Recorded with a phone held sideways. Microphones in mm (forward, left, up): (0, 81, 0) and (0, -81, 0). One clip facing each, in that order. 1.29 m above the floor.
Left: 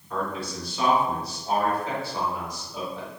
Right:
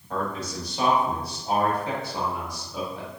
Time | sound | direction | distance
0.1 | a man speaking | 55° right (ahead or behind) | 1.7 m